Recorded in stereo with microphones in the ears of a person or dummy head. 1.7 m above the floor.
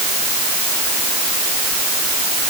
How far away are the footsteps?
No footsteps in this recording.